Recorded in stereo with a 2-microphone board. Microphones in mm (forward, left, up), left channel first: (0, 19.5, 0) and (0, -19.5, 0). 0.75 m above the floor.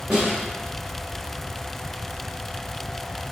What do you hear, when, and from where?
0.1 s a snare drum: 15° right (ahead or behind), 1.6 m